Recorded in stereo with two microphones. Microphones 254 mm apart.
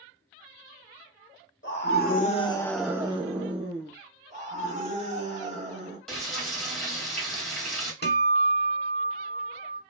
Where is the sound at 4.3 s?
30° right (ahead or behind), 1.5 m.